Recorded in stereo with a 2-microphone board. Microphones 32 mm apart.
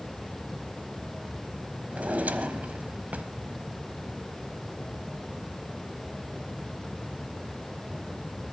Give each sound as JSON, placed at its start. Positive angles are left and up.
{"t": 1.9, "sound": "a drawer", "side_deg": -55, "distance_m": 1.1}